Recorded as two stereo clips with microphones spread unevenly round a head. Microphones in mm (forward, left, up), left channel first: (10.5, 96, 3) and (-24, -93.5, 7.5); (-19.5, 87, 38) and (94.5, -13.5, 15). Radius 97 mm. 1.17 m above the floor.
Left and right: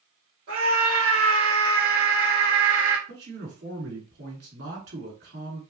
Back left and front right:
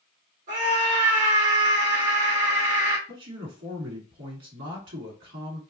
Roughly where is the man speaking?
Ahead right.